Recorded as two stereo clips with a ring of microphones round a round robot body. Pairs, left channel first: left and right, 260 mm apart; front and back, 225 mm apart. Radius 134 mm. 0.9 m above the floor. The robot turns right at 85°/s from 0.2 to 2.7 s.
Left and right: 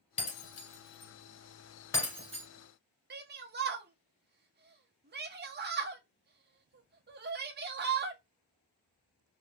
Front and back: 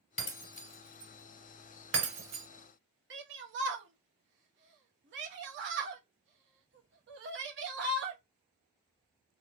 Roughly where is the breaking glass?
Ahead.